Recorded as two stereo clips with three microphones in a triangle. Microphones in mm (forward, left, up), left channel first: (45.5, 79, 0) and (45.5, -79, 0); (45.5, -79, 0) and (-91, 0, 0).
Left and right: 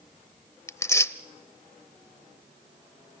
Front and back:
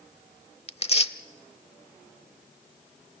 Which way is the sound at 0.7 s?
20° left.